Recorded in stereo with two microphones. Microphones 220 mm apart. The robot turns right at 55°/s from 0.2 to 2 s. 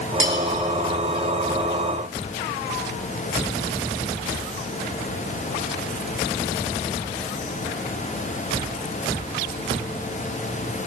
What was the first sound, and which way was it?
Cutlery clinking, 65° right (ahead or behind).